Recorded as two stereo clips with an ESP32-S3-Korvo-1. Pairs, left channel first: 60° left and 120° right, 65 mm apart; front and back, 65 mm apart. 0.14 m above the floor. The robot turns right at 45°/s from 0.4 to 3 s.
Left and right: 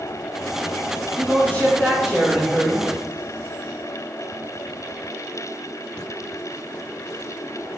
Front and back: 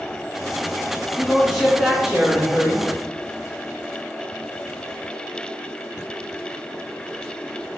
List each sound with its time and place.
1.2 s a man speaking: 80° left, 1.9 m; by 2.9 s 155° left, 1.9 m